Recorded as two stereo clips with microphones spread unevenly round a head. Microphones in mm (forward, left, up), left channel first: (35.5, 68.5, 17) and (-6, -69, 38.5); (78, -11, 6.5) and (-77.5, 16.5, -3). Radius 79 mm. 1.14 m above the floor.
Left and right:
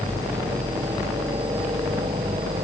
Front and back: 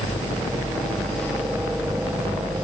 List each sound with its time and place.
0.0 s a helicopter: 75° right; by 2.6 s 125° right